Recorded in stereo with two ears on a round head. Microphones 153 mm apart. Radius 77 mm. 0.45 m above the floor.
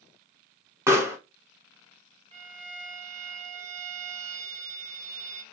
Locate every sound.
0.9 s a pop: 15° right (ahead or behind), 1.0 m
2.3 s a violin: 40° right (ahead or behind), 0.7 m